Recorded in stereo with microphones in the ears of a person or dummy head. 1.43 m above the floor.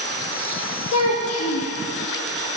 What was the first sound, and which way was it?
A child speaking, 80° left.